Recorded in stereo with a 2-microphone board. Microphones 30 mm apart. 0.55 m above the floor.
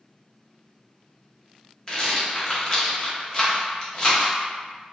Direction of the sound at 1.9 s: 30° left (ahead or behind).